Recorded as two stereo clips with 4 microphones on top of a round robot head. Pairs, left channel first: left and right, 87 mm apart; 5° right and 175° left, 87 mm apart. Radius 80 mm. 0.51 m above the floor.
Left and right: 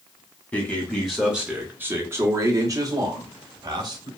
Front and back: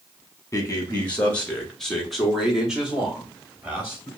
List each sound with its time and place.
0.5 s a man speaking: 30° left, 0.9 m; by 4.1 s 115° right, 1.6 m